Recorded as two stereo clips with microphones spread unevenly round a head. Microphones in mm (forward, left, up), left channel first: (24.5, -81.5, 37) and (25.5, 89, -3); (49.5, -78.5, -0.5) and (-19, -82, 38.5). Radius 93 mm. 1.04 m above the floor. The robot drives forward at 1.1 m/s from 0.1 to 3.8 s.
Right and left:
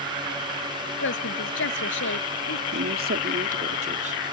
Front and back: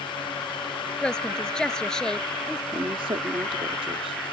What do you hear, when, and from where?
1.0 s a woman speaking: 75° right; by 2.6 s 80° right
2.7 s a woman speaking: 115° left; by 4.2 s 140° left